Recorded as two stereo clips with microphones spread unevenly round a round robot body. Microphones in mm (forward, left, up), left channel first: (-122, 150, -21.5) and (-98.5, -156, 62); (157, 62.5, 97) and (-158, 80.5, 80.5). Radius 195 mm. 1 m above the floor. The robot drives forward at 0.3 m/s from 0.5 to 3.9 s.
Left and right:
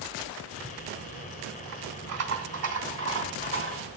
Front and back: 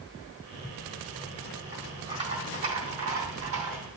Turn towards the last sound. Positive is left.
turn(degrees=-135)